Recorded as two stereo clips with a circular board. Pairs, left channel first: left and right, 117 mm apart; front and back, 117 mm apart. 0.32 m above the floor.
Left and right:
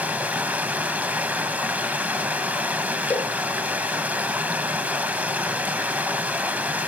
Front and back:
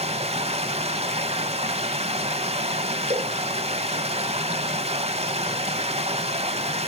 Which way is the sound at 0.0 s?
165° right.